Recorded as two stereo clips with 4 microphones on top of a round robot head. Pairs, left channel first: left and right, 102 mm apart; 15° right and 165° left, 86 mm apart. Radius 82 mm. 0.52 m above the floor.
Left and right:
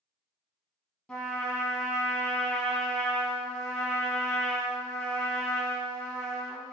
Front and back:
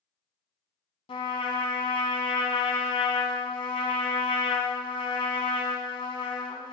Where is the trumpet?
5° left, 1.2 m.